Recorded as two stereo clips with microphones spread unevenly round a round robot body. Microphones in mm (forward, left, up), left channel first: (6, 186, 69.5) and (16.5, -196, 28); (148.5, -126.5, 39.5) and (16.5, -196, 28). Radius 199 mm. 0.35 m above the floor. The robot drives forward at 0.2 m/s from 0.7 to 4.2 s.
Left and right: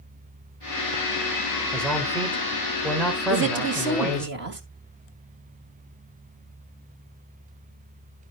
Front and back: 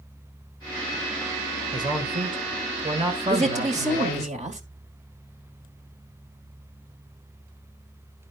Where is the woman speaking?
135° right, 2 m; by 4.6 s 140° right, 2 m.